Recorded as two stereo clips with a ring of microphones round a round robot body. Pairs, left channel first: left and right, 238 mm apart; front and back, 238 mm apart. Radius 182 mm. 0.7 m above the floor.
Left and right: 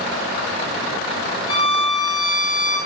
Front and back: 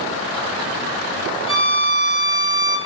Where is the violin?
155° left, 4.5 m.